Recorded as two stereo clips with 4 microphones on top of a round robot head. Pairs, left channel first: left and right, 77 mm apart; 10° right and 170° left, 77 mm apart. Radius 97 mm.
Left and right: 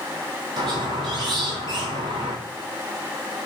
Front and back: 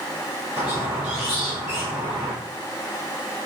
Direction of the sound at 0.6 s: 110° right.